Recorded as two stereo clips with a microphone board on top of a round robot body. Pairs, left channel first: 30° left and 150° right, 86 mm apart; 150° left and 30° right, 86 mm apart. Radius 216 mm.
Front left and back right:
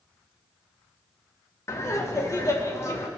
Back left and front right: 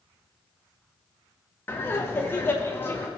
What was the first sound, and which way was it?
Laughter, 85° left.